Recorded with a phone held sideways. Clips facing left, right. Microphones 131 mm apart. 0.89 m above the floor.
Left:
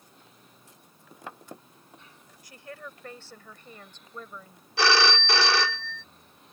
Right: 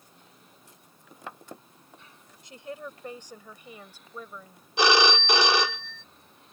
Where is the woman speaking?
25° right (ahead or behind); by 4.7 s 5° right (ahead or behind).